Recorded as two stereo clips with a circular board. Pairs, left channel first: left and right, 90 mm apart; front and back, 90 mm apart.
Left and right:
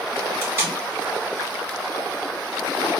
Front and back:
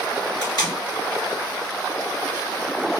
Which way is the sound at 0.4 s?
35° right.